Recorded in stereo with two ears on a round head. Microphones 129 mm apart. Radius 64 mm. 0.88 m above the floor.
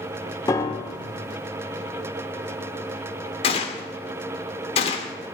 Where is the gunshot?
45° left (ahead or behind), 1.8 m.